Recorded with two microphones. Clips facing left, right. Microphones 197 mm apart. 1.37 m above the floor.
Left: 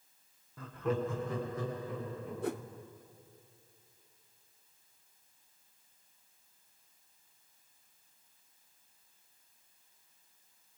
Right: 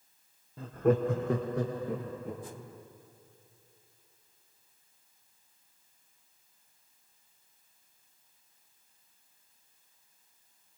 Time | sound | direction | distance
0.6 | laughter | 25° right (ahead or behind) | 0.8 m
2.4 | a whoosh | 80° left | 0.6 m